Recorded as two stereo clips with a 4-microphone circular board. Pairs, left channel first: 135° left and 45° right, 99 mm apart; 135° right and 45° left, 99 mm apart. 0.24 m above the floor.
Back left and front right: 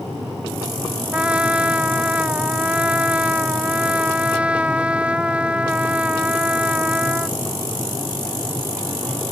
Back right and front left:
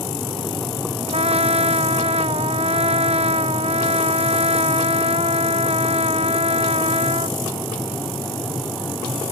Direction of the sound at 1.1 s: 35° left.